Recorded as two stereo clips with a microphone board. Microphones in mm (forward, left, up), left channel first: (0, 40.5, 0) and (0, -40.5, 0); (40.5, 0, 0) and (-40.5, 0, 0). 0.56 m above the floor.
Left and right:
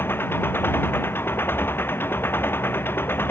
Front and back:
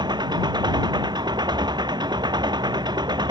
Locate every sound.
0.0 s an engine running: 155° left